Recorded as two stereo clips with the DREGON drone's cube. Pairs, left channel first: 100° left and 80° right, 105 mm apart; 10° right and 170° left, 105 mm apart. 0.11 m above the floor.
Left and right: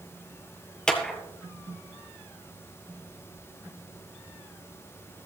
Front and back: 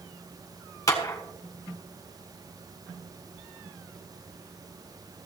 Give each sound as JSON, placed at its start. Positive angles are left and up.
{"t": 0.9, "sound": "a clap", "azimuth_deg": 20, "distance_m": 1.6}